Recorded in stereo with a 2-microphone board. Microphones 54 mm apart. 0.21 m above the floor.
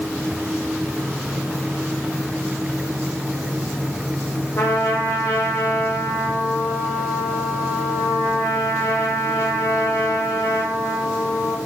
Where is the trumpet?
75° left (ahead or behind), 1.8 m.